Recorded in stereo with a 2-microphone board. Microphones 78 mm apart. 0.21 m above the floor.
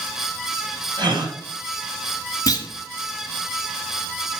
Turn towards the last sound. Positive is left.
turn(degrees=50)  # may be behind; listen again after turning